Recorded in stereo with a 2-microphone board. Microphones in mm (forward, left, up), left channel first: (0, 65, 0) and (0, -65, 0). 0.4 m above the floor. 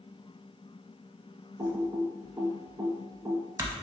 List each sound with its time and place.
1.6 s typing on a keyboard: 25° right (ahead or behind), 0.6 m